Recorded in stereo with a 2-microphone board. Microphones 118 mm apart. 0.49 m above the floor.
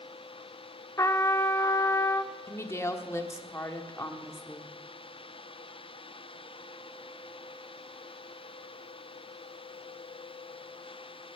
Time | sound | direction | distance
1.0 | a trumpet | 30° left (ahead or behind) | 0.7 m
2.5 | a woman speaking | 25° left (ahead or behind) | 1.2 m